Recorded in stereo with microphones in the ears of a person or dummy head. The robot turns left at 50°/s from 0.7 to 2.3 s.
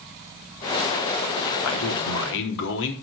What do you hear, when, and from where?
1.6 s a man speaking: 100° left, 3.5 m; by 2.9 s 70° left, 3.5 m